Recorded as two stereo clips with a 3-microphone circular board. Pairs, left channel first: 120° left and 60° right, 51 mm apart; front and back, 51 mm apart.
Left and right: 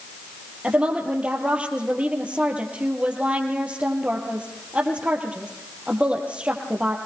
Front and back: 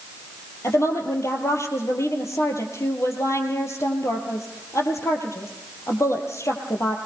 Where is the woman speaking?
5° left, 3.5 m.